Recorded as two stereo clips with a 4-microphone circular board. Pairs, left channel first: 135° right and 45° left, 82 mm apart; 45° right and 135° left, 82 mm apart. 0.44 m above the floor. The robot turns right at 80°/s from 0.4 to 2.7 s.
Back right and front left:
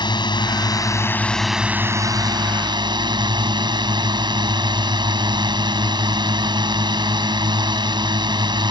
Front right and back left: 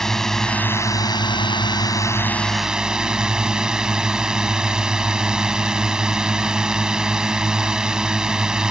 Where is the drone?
130° right; by 8.7 s 55° left.